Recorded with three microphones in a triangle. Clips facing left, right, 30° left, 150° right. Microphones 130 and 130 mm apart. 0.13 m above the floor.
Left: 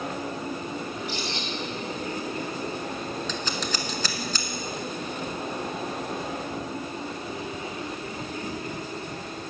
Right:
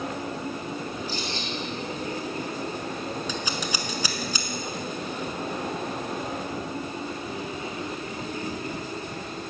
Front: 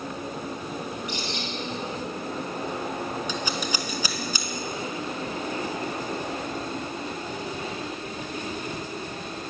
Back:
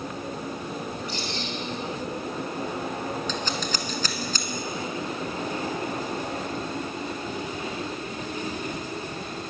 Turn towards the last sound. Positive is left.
turn(degrees=-30)